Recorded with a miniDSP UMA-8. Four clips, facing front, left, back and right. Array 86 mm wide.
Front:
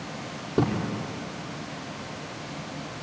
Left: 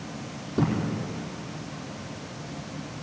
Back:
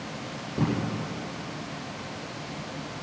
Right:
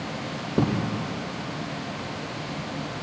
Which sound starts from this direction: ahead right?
A thud, at 0.6 s.